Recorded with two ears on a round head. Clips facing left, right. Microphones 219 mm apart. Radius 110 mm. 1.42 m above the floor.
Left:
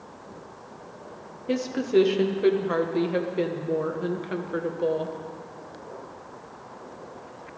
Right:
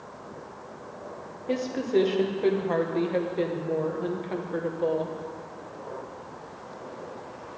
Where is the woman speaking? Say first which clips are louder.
Left 2 dB; 15° left (ahead or behind), 1.0 m.